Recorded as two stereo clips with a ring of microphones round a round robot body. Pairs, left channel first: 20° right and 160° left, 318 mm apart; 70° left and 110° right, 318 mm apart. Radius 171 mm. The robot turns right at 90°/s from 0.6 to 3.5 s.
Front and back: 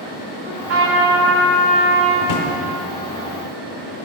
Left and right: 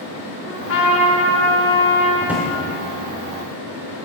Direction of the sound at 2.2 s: 35° right.